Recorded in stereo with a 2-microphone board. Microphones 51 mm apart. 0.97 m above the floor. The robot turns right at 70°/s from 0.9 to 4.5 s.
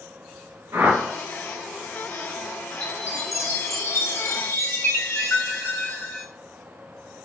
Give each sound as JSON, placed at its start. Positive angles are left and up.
{"t": 0.7, "sound": "a whoosh", "side_deg": -75, "distance_m": 4.0}
{"t": 2.8, "sound": "a chime", "azimuth_deg": 20, "distance_m": 2.5}